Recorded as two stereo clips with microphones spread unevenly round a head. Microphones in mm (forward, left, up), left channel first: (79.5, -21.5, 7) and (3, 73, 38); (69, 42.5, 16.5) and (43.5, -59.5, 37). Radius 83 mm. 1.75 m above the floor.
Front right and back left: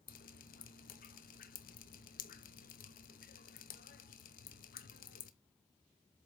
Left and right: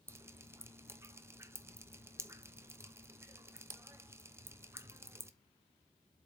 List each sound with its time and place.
0.1 s dripping: 45° right, 0.9 m